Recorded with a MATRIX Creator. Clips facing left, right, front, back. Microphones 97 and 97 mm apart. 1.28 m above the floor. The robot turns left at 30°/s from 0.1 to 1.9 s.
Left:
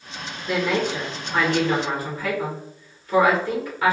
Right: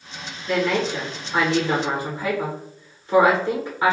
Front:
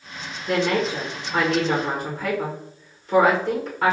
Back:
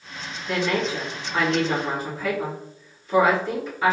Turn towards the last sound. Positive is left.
turn(degrees=-25)